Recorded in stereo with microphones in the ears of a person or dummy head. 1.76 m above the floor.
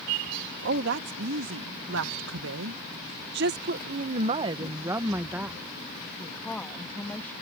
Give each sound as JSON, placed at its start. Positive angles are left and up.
{"t": 0.6, "sound": "a woman speaking", "side_deg": -65}